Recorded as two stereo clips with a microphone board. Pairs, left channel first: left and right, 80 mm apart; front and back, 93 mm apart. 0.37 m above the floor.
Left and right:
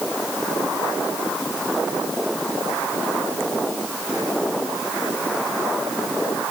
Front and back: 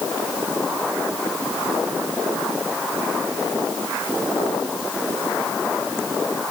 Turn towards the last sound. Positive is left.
No sound to turn to.